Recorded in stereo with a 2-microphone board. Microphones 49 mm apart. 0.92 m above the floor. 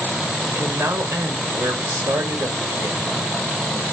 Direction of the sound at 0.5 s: 75° right (ahead or behind).